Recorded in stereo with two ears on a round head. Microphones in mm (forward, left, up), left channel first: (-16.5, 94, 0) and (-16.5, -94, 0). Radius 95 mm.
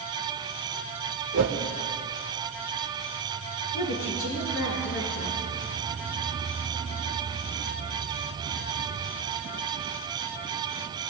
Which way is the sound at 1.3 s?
80° right.